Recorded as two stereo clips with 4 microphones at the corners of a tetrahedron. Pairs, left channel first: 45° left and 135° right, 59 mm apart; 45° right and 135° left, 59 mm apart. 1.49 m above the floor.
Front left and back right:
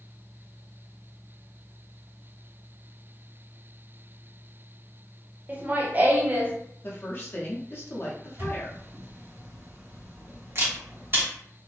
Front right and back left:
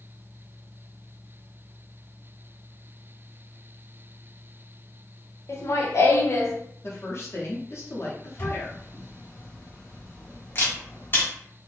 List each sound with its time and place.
5.5 s laughter: 75° right, 0.8 m
6.8 s a woman speaking: 5° right, 0.7 m
8.4 s a camera shutter: 90° right, 1.0 m